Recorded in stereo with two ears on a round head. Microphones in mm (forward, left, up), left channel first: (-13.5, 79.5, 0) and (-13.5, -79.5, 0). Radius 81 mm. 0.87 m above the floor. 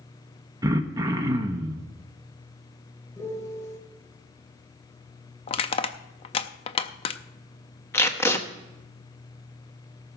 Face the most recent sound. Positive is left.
turn(degrees=15)  # may be behind; listen again after turning